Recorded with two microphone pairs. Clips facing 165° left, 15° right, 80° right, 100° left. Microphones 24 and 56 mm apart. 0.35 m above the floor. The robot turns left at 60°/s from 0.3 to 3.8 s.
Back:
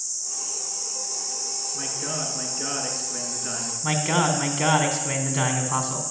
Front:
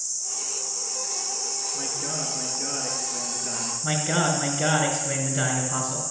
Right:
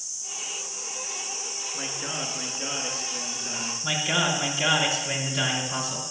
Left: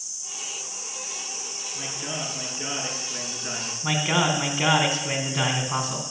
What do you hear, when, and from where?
1.7 s a man speaking: 120° right, 5.5 m; by 3.7 s 120° left, 5.5 m
3.8 s a man speaking: 150° left, 3.5 m